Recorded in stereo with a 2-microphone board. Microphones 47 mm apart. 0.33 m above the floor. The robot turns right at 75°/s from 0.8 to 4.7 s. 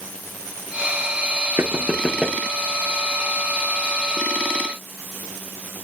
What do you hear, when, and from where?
1.6 s knocking: 60° right; by 2.4 s straight ahead